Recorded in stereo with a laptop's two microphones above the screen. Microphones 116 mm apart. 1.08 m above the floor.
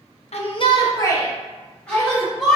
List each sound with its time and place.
0.3 s a shout: 65° left (ahead or behind), 0.6 m; by 2.6 s 5° left (ahead or behind), 1.7 m